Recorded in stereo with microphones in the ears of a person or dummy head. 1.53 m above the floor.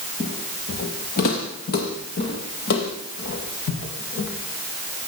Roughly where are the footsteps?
Left.